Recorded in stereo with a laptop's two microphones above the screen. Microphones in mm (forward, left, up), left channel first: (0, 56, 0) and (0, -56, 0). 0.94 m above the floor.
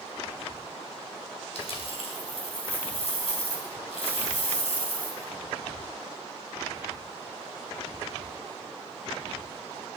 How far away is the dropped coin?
About 2.5 m.